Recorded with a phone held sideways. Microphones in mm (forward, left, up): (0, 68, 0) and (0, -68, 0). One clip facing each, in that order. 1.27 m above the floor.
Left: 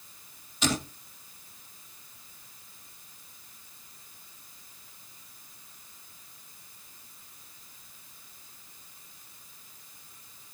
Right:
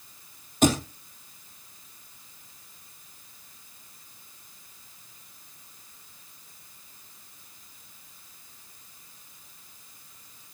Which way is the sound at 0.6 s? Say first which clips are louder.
Right 8 dB; 50° right (ahead or behind).